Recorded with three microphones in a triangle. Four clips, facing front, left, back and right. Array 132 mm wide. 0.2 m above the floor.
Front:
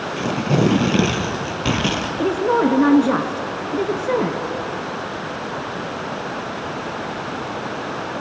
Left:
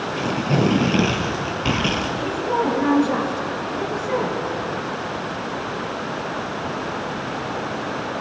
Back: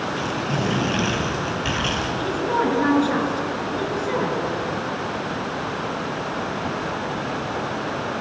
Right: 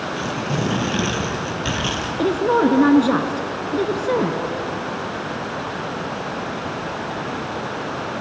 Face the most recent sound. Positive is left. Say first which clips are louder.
# right 7 dB, front 6 dB
turn(degrees=-45)